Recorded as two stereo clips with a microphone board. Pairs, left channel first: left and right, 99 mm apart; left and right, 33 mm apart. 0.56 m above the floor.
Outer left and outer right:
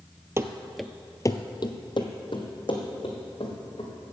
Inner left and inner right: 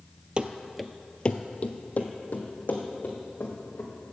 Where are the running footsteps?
30° right (ahead or behind), 0.7 m; by 3.9 s 55° left (ahead or behind), 3 m.